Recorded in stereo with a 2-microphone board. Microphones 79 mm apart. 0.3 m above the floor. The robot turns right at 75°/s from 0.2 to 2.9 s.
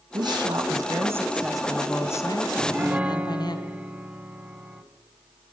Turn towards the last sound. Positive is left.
turn(degrees=-20)  # may be behind; listen again after turning